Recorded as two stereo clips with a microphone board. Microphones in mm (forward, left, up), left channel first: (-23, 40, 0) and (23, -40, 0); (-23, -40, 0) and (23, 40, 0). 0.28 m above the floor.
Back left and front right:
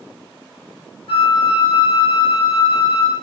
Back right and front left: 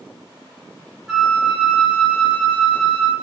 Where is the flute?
145° left, 0.8 m.